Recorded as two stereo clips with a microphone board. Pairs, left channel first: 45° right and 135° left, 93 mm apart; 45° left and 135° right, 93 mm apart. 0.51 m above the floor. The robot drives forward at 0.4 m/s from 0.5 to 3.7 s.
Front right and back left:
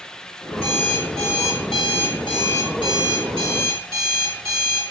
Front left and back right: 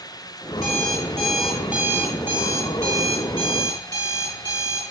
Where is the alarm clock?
45° right, 1.7 m; by 4.8 s 95° right, 1.3 m.